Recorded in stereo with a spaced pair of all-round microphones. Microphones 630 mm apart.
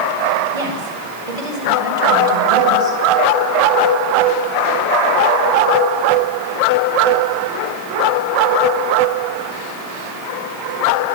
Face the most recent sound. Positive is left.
turn(degrees=-70)  # may be behind; listen again after turning